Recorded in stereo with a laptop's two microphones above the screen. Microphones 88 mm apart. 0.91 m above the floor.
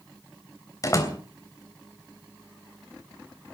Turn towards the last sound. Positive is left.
turn(degrees=40)  # may be behind; listen again after turning